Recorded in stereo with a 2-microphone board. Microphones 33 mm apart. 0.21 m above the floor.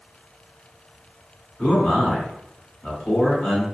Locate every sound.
1.6 s a man speaking: 35° left (ahead or behind), 1.8 m